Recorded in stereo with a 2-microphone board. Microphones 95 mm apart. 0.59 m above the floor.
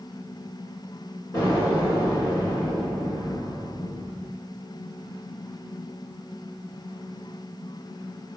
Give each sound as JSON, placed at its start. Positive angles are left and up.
{"t": 1.3, "sound": "an explosion", "side_deg": 30, "distance_m": 1.5}